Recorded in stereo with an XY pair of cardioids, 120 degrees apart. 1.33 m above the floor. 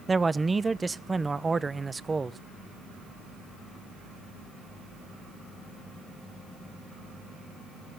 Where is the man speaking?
20° right, 0.8 m.